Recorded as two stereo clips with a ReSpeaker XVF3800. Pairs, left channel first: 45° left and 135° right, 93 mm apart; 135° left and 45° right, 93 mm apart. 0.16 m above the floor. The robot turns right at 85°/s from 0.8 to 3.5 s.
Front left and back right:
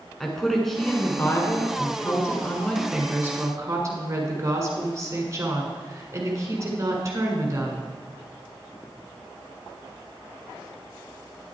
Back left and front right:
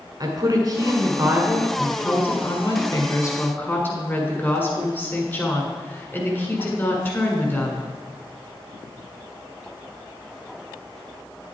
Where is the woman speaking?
40° right, 1.6 m; by 7.9 s 170° right, 1.6 m.